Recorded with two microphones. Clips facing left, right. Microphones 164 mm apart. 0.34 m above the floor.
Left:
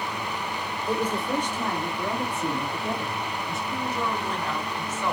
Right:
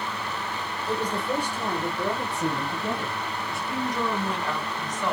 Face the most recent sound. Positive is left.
turn(degrees=-15)  # may be behind; listen again after turning